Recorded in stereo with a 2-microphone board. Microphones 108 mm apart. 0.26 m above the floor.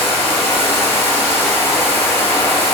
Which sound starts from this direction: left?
Running water, at 0.0 s.